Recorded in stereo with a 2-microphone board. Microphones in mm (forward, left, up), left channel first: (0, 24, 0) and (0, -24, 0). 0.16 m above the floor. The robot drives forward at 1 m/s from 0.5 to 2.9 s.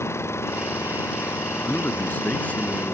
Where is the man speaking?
40° left (ahead or behind); by 2.9 s 25° left (ahead or behind).